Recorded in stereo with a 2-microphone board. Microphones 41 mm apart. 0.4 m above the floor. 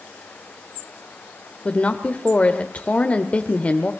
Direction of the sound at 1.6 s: 35° left (ahead or behind).